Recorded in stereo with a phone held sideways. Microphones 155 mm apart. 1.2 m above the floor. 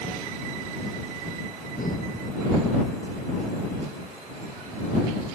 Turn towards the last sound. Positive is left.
turn(degrees=65)  # may be behind; listen again after turning